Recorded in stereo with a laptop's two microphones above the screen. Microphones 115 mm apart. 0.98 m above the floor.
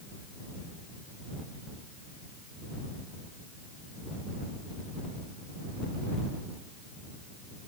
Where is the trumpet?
I don't hear a trumpet.